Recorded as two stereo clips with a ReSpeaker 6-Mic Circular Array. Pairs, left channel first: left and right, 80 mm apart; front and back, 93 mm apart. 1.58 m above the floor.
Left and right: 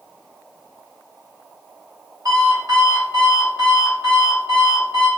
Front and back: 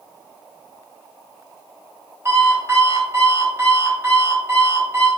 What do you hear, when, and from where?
2.2 s an alarm clock: 120° right, 1.5 m